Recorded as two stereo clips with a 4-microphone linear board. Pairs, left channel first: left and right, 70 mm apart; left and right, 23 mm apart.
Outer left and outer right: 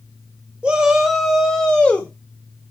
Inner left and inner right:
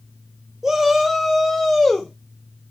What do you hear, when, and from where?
0.6 s a shout: 15° right (ahead or behind), 1.0 m; by 2.1 s 20° left (ahead or behind), 0.9 m